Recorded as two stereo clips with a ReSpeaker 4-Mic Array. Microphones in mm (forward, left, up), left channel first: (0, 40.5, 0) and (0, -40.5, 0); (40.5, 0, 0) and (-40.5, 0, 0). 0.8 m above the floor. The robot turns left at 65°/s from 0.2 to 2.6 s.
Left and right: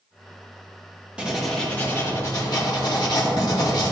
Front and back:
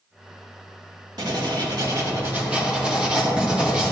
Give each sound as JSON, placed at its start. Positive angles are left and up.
{"t": 1.2, "sound": "writing", "azimuth_deg": -165, "distance_m": 1.8}